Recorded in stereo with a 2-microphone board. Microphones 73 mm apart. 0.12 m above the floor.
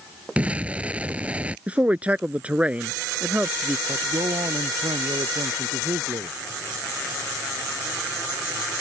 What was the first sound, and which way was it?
An explosion, 20° right (ahead or behind).